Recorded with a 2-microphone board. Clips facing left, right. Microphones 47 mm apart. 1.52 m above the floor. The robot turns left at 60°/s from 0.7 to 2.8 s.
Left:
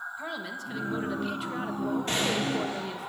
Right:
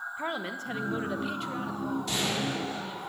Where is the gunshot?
145° left, 3.5 m; by 3.1 s 105° left, 3.5 m.